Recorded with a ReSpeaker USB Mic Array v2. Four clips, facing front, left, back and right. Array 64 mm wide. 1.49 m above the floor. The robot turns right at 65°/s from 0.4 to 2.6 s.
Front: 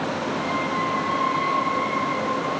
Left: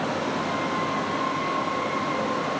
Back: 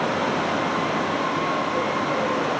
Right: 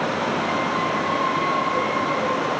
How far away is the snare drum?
No snare drum in this recording.